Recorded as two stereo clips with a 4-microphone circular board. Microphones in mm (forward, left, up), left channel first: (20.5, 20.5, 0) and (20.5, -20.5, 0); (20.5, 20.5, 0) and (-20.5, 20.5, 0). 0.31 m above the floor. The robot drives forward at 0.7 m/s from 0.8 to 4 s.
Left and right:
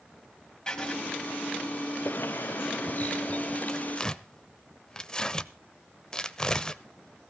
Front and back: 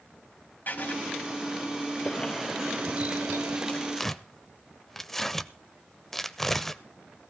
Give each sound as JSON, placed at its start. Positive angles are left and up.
{"t": 0.7, "sound": "writing", "azimuth_deg": 20, "distance_m": 1.3}
{"t": 2.0, "sound": "a bird", "azimuth_deg": 55, "distance_m": 0.6}
{"t": 3.7, "sound": "tearing paper", "azimuth_deg": 30, "distance_m": 0.6}